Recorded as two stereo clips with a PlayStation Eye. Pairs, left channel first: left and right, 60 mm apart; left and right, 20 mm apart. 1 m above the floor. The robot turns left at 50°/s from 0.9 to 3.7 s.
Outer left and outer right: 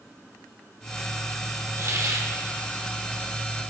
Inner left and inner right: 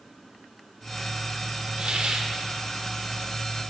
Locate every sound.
1.8 s a hiss: 60° right (ahead or behind), 1.1 m; by 2.3 s 70° right (ahead or behind), 1.1 m